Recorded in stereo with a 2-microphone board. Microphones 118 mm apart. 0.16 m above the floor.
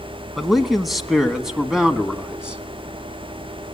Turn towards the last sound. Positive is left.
turn(degrees=-5)  # may be behind; listen again after turning